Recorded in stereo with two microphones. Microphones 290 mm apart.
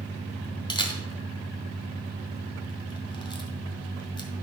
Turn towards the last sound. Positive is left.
turn(degrees=15)  # may be behind; listen again after turning